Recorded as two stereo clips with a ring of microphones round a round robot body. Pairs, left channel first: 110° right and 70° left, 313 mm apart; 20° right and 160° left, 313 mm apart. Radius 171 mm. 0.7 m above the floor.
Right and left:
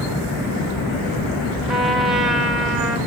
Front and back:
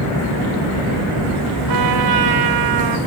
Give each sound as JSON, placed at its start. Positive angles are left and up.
{"t": 1.7, "sound": "a trumpet", "azimuth_deg": 155, "distance_m": 3.0}